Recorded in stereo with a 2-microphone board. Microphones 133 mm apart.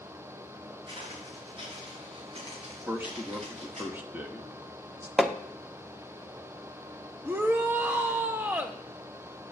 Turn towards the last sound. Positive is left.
turn(degrees=-15)  # may be behind; listen again after turning